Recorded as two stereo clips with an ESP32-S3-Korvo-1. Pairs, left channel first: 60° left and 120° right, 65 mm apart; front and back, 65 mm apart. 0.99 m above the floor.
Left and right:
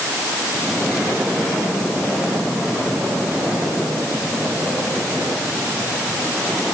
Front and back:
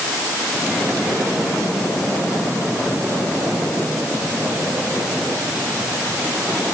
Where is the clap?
I don't hear a clap.